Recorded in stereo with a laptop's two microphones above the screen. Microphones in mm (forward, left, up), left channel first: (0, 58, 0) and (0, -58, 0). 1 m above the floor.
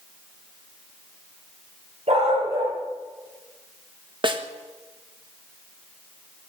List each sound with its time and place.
2.1 s a dog barking: 65° right (ahead or behind), 8.5 m
4.2 s a snare drum: 45° right (ahead or behind), 1.3 m